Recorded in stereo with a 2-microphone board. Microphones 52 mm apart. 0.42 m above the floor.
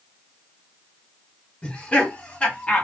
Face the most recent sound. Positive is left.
turn(degrees=25)  # may be behind; listen again after turning